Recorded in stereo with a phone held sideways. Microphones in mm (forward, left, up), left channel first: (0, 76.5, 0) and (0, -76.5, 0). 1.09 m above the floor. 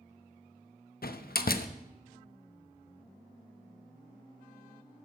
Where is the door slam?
80° left, 0.7 m.